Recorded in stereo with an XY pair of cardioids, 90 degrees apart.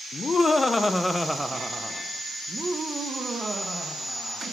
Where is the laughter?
40° left, 1.0 m; by 4.4 s 45° right, 2.5 m.